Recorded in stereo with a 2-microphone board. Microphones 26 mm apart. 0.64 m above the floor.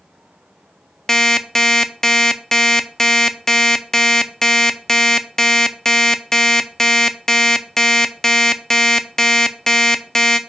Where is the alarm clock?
15° left (ahead or behind), 0.5 m.